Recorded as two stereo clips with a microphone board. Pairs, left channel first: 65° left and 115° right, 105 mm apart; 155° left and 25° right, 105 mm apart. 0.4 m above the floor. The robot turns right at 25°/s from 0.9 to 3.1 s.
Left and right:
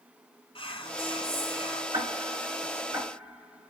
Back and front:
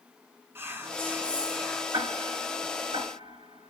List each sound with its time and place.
0.6 s whispering: 45° left, 2.5 m; by 1.8 s 65° left, 2.5 m
1.9 s ticking: 65° right, 5 m; by 3.7 s 35° right, 5 m